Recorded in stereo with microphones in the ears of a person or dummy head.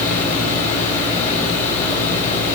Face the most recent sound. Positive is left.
turn(degrees=45)  # may be behind; listen again after turning